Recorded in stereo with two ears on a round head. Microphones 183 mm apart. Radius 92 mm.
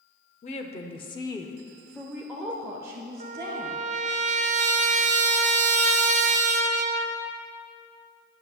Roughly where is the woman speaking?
Left.